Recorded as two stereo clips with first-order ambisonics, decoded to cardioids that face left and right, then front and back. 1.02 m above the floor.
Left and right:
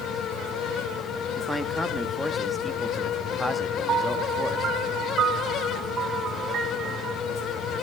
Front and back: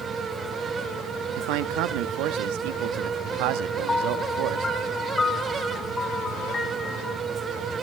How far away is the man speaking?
About 1.2 m.